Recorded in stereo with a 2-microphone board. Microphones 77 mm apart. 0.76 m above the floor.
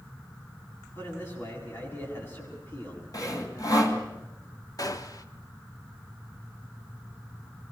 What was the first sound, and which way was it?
A man speaking, 30° left (ahead or behind).